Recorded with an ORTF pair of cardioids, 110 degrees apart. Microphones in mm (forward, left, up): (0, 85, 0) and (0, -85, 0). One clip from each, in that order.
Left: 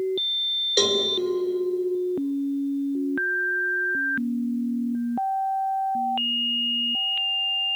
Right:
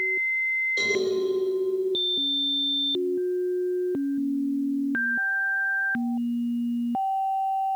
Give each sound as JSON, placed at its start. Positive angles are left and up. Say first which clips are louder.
{"t": 0.8, "sound": "a cowbell", "louder": "left 3 dB", "azimuth_deg": 65, "distance_m": 3.0}